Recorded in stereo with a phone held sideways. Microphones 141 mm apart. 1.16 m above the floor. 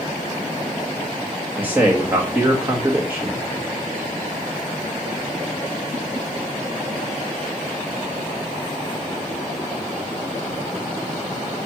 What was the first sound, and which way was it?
A man speaking, 15° right (ahead or behind).